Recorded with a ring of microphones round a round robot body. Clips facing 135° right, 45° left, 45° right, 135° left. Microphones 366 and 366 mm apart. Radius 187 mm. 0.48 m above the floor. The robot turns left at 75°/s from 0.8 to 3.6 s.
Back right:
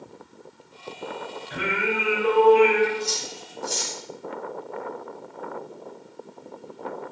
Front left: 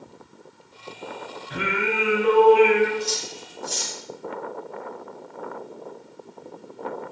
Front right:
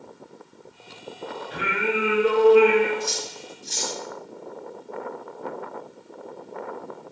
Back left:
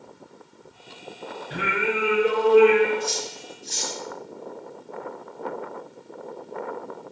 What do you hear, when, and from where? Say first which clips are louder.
1.5 s singing: front left 1 dB, even; 90° left, 2.5 m; by 2.9 s 15° right, 2.5 m
3.0 s cutlery clinking: front left 1 dB, back left 1 dB; 45° right, 1.8 m; by 4.0 s 90° right, 1.8 m